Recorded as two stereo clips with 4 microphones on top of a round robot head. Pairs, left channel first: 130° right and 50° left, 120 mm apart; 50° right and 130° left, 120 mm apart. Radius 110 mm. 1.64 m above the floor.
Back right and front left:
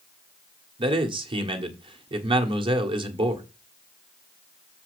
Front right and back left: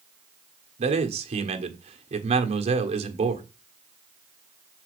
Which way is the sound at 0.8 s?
95° left.